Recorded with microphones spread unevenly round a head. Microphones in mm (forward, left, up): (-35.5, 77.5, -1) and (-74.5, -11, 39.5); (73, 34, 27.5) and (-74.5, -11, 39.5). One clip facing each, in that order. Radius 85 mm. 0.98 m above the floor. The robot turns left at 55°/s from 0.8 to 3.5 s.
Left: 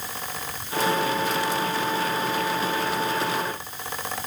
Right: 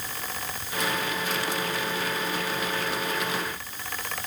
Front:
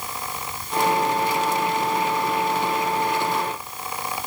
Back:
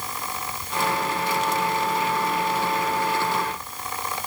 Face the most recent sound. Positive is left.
No sound to turn to.